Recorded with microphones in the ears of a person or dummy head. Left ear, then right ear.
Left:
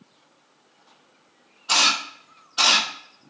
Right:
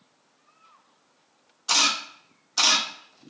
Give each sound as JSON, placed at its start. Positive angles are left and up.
{"t": 1.7, "sound": "a camera shutter", "side_deg": -70, "distance_m": 1.2}